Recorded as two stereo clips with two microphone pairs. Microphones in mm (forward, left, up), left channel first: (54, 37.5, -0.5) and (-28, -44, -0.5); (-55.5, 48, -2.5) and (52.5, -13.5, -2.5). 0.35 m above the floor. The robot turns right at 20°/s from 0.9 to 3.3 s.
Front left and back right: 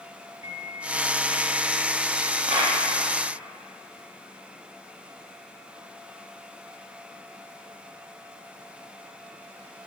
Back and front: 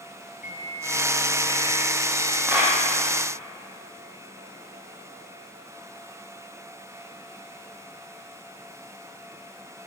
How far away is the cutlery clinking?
I don't hear cutlery clinking.